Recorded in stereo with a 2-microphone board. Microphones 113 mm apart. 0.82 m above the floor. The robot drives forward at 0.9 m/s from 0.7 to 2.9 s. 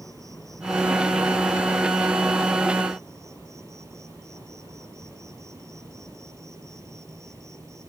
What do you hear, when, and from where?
0.0 s an insect: 30° right (ahead or behind); by 7.9 s 25° right (ahead or behind)